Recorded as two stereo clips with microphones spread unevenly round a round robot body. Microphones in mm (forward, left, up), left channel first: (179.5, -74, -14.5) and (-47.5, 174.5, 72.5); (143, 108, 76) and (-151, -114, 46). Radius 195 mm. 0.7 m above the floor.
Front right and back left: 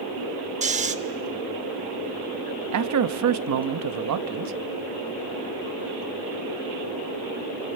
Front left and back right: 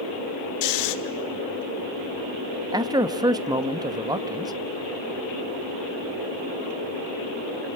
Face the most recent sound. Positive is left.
turn(degrees=150)